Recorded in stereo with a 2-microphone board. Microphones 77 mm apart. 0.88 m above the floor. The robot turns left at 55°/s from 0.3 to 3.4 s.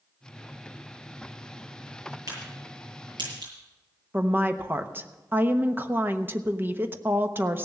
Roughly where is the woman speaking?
Right.